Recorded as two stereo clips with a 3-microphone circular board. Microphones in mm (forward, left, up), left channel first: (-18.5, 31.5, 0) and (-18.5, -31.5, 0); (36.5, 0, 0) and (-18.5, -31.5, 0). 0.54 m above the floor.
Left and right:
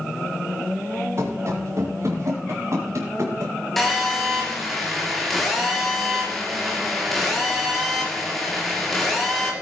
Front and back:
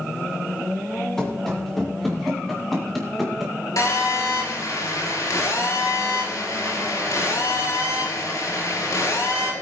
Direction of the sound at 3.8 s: Straight ahead.